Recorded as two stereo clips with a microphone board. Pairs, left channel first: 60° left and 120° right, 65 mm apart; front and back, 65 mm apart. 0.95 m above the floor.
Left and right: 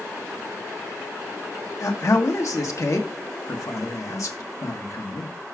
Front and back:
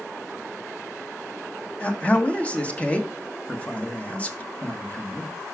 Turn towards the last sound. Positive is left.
turn(degrees=60)